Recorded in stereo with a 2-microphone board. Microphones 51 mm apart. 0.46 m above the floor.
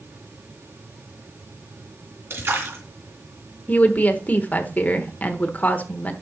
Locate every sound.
2.3 s a splash: 60° right (ahead or behind), 3 m
3.7 s a woman speaking: 35° left (ahead or behind), 1.0 m